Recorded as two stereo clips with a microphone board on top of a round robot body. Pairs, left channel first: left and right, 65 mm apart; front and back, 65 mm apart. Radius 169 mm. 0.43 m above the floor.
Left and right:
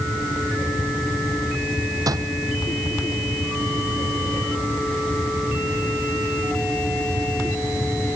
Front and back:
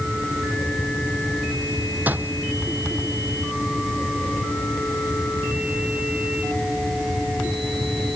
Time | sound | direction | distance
2.1 | a door slam | 115° right | ?